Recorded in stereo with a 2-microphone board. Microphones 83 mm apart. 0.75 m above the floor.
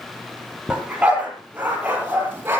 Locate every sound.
0.7 s a dog barking: 15° right (ahead or behind), 7.5 m; by 2.6 s 25° right (ahead or behind), 8 m